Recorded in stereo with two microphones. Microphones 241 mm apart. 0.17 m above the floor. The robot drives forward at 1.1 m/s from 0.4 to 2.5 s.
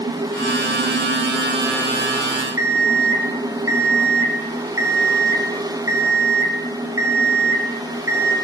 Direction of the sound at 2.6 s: 10° right (ahead or behind).